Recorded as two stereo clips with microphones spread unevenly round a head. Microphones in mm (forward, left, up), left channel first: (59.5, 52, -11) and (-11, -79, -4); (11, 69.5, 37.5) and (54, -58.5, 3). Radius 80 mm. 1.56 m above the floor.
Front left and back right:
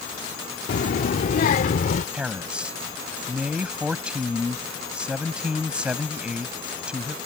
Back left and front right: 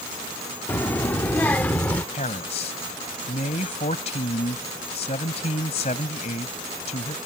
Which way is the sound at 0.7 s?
40° left.